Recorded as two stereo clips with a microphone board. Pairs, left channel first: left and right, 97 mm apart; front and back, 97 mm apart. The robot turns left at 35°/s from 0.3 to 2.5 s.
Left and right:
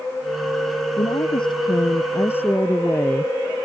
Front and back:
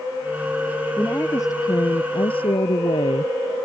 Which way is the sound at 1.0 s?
70° left.